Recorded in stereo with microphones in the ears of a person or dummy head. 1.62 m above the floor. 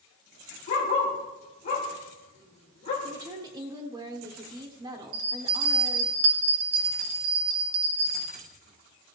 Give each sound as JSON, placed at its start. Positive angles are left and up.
{"t": 0.7, "sound": "a dog barking", "side_deg": 35, "distance_m": 2.5}
{"t": 3.0, "sound": "a woman speaking", "side_deg": -25, "distance_m": 0.9}
{"t": 5.1, "sound": "a bell", "side_deg": -70, "distance_m": 1.4}